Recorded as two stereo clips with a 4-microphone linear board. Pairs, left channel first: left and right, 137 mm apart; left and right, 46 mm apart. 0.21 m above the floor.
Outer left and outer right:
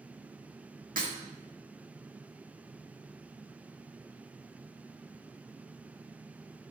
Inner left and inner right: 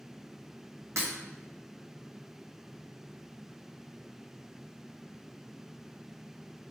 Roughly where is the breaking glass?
Right.